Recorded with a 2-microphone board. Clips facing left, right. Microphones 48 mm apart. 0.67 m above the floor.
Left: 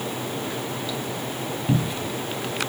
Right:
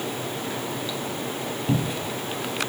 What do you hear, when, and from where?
1.7 s a cupboard door: centre (ahead or behind), 2.5 m